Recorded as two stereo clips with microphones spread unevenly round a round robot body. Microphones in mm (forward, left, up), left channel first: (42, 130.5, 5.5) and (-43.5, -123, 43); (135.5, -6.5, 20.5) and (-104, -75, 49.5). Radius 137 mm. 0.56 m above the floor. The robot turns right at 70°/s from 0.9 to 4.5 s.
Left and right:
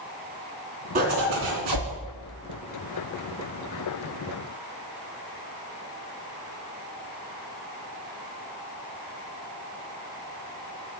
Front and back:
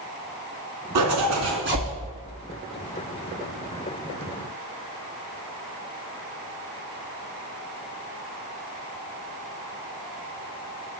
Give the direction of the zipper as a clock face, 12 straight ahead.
6 o'clock.